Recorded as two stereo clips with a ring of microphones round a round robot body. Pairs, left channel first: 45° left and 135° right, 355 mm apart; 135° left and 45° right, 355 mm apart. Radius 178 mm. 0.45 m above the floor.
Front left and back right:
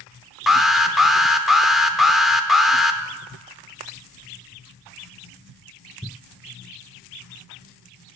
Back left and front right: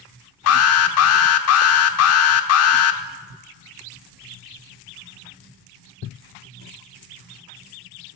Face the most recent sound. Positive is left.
turn(degrees=135)